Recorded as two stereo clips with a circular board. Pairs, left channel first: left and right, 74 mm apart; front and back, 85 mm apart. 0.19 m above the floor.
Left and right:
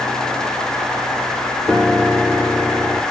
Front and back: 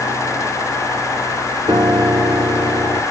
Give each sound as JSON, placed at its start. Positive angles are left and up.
{"t": 1.7, "sound": "a piano", "azimuth_deg": -175, "distance_m": 1.1}